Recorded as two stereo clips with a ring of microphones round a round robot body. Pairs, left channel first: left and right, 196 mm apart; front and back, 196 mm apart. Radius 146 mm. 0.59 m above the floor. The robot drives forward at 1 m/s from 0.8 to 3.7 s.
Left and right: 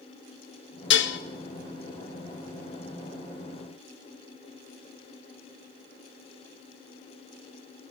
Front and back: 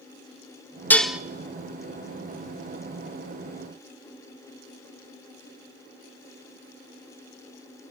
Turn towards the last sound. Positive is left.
turn(degrees=160)